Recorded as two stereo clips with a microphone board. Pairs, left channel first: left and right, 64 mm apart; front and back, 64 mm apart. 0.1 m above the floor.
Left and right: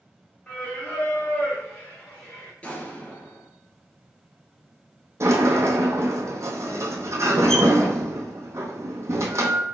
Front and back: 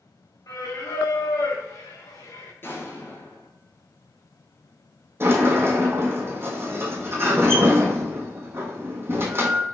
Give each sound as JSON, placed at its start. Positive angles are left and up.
{"t": 0.5, "sound": "singing", "azimuth_deg": 25, "distance_m": 1.5}
{"t": 2.6, "sound": "an explosion", "azimuth_deg": 30, "distance_m": 1.5}
{"t": 5.2, "sound": "a sliding door", "azimuth_deg": -130, "distance_m": 1.1}